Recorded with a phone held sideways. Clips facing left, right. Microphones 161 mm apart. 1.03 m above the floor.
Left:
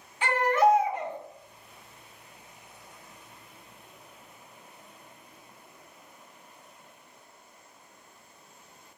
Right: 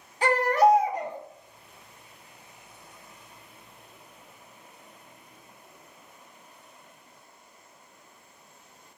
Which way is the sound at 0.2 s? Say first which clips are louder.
Right 2 dB; 40° right (ahead or behind).